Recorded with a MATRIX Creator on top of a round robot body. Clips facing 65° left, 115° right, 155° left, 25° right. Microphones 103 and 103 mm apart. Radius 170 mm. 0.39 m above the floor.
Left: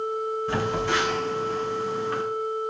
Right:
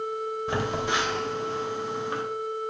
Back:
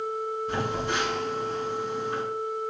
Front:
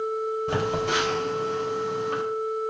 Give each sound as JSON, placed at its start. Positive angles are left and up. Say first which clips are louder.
{"t": 0.5, "sound": "a phone buzzing", "louder": "left 1 dB, front 3 dB", "azimuth_deg": -40, "distance_m": 3.0}